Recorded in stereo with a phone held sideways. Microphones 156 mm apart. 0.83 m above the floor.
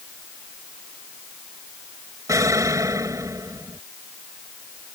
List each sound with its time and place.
2.3 s an explosion: 20° right (ahead or behind)